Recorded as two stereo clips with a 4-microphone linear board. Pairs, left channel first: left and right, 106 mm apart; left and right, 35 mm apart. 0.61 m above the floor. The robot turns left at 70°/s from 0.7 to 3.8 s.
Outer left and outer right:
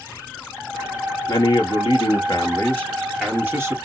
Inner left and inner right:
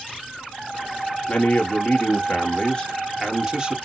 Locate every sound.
1.3 s a man speaking: 130° left, 1.6 m; by 3.8 s 40° right, 1.6 m